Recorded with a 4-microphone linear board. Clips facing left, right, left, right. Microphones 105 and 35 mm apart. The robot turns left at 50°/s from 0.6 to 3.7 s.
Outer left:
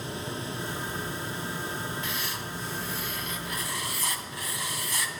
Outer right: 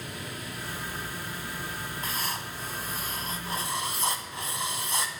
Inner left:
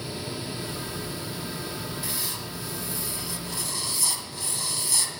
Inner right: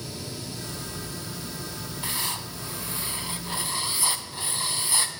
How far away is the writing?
About 2 m.